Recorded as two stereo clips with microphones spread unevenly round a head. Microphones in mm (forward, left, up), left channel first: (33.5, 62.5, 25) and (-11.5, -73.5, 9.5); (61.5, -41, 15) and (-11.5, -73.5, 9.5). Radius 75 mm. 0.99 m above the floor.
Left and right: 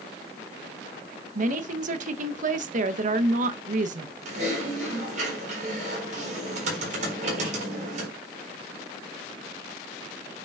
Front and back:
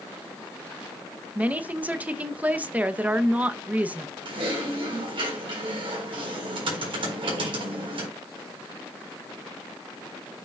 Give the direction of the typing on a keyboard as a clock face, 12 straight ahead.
5 o'clock.